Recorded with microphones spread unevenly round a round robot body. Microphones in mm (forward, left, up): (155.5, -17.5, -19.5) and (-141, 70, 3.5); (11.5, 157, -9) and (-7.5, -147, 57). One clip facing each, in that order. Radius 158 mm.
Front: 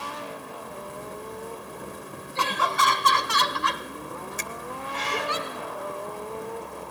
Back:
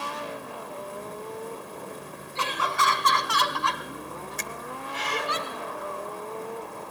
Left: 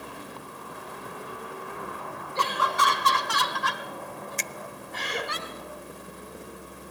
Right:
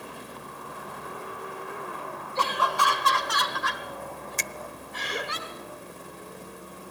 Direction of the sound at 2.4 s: 20° left.